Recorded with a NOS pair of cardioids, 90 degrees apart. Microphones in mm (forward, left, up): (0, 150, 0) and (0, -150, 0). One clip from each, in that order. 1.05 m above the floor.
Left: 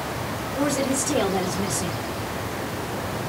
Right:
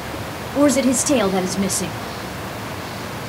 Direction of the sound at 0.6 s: 65° right.